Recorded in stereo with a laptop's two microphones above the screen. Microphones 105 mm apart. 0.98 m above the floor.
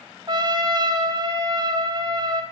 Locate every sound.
0.3 s a trumpet: 40° right (ahead or behind), 1.1 m